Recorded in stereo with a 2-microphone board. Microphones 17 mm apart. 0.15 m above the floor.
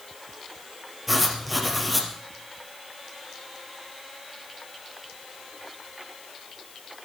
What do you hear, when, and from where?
1.1 s writing: 5° right (ahead or behind), 3 m